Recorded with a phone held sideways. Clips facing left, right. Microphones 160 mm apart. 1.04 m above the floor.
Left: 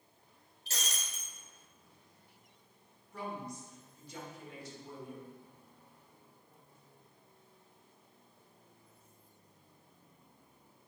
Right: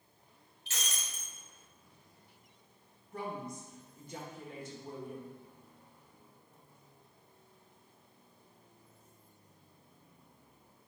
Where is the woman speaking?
50° right (ahead or behind), 1.7 m.